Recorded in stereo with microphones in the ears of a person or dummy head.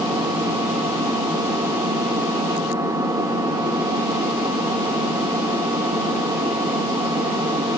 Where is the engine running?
20° right (ahead or behind), 1.7 m.